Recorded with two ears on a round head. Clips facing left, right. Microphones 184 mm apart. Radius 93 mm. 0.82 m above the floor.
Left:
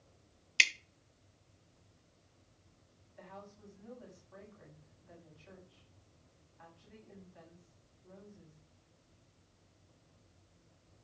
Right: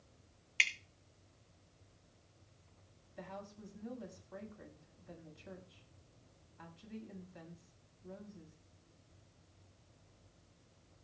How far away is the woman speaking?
About 7.5 m.